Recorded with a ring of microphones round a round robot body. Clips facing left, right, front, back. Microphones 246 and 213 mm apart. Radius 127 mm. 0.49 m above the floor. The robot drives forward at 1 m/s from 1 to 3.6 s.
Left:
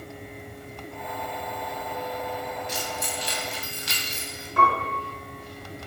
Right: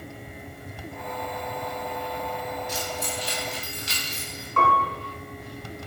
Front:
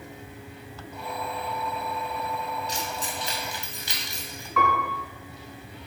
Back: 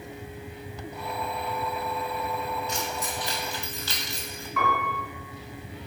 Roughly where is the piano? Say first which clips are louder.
Even, front 2 dB; ahead.